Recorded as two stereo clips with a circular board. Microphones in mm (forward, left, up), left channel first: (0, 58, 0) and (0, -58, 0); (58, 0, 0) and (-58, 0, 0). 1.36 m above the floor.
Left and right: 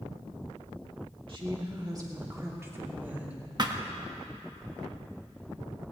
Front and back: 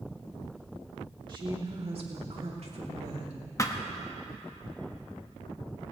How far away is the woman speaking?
About 2.5 m.